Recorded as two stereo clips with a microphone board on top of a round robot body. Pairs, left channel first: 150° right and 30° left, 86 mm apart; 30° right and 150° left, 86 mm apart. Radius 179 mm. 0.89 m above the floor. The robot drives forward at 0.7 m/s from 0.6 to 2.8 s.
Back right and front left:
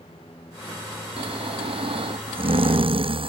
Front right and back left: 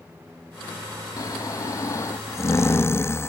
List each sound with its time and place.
1.2 s snoring: 20° left; by 3.3 s 30° left